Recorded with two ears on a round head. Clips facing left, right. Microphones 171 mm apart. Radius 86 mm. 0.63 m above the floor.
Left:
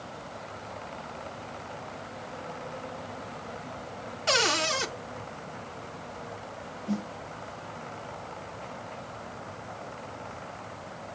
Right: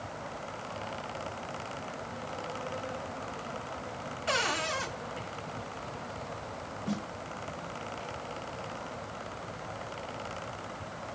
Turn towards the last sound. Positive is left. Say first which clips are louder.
# left 4 dB
turn(degrees=-40)  # may be behind; listen again after turning